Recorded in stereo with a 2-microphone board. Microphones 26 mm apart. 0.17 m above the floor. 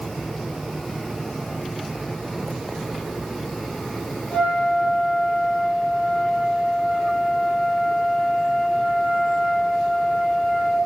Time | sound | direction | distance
4.3 | a flute | 70° left (ahead or behind) | 2 m